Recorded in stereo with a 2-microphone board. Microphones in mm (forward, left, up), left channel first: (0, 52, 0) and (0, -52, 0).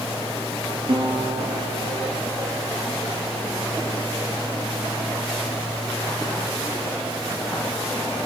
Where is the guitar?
60° right (ahead or behind), 4.5 m.